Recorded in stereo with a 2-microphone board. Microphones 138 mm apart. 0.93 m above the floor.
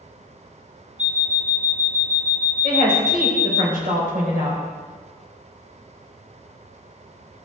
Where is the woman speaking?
70° right (ahead or behind), 3 m.